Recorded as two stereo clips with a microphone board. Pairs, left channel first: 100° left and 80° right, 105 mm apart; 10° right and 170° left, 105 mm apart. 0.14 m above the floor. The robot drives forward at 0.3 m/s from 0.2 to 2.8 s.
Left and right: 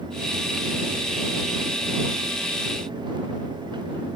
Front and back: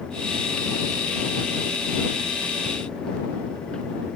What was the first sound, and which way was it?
Only background noise.